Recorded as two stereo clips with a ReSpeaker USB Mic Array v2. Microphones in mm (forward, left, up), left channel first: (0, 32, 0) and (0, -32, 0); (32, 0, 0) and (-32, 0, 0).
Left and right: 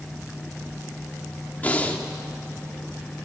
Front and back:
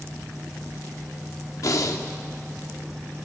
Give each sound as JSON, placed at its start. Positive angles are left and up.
{"t": 1.6, "sound": "breathing", "azimuth_deg": 25, "distance_m": 2.0}